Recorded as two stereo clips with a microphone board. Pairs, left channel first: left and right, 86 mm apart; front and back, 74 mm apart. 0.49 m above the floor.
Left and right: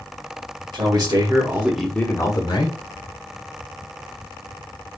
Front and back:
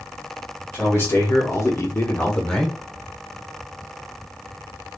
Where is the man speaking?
55° right, 1.7 m; by 2.8 s 85° left, 1.4 m.